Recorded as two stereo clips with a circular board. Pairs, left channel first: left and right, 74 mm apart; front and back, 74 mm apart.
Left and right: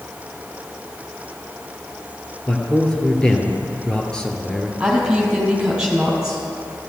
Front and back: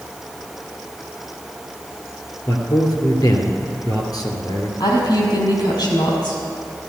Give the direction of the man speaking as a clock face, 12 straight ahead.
12 o'clock.